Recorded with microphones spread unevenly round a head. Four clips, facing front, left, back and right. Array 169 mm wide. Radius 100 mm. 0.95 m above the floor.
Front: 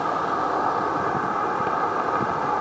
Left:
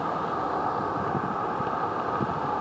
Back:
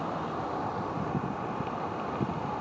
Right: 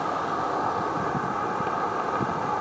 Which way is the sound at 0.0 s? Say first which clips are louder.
Right 1 dB, front 9 dB; 10° right.